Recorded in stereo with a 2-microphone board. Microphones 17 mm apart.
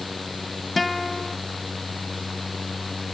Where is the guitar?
10° left (ahead or behind).